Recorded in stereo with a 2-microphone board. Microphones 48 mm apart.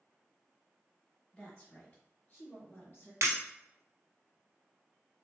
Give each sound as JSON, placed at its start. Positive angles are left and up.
{"t": 1.3, "sound": "a woman speaking", "side_deg": 20, "distance_m": 2.5}
{"t": 3.2, "sound": "breaking glass", "side_deg": -85, "distance_m": 1.8}